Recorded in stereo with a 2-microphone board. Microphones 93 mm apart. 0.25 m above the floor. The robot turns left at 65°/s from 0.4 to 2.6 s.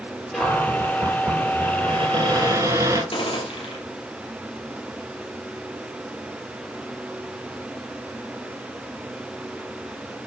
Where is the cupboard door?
5° left, 3.5 m; by 3.0 s 140° right, 3.5 m.